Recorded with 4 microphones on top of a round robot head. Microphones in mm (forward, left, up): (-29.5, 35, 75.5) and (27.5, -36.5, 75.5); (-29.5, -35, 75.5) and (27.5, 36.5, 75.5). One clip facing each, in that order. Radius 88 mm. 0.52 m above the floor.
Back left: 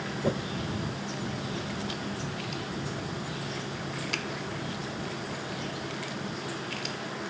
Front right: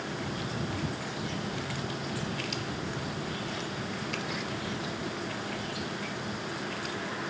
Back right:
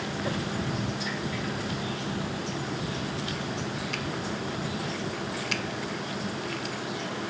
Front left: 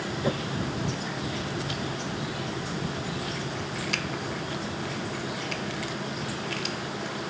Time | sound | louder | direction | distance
0.2 | a whoosh | back left 7 dB, front left 4 dB | 120° left | ?